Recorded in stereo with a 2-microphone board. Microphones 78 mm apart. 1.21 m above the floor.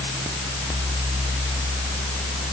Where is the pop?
No pop in this recording.